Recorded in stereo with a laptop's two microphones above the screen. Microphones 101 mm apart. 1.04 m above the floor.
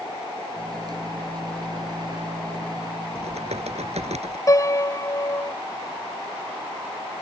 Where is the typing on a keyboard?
85° right.